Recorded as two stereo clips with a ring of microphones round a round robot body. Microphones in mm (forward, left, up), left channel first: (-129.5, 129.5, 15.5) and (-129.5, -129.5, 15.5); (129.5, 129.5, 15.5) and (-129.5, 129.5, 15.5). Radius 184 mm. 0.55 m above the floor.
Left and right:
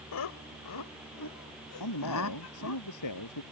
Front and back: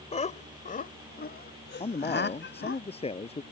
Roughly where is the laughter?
Ahead left.